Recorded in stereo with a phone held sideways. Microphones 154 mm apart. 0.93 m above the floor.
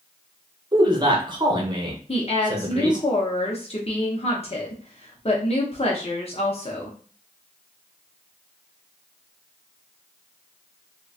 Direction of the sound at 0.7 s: 30° right (ahead or behind).